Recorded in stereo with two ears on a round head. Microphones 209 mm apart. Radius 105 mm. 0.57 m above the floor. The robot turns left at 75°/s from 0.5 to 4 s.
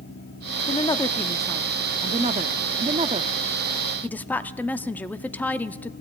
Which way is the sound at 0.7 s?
25° left (ahead or behind).